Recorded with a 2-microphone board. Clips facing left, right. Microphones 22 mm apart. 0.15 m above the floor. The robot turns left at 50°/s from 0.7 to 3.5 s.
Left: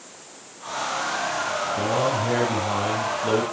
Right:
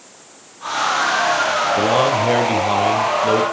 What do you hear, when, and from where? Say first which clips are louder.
1.8 s a man speaking: right 6 dB; 95° right, 4 m; by 3.4 s 175° right, 4 m